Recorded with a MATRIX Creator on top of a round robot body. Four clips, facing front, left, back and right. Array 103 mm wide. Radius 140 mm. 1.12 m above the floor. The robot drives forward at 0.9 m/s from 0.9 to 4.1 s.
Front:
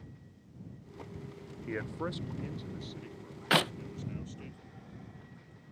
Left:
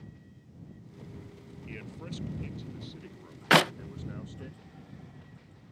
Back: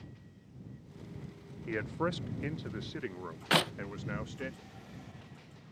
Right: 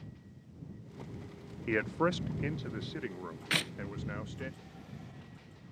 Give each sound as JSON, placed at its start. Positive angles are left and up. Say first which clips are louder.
{"t": 1.7, "sound": "a man speaking", "louder": "right 13 dB, back 3 dB", "azimuth_deg": -90}
{"t": 3.5, "sound": "a clap", "louder": "left 15 dB, front 1 dB", "azimuth_deg": 85}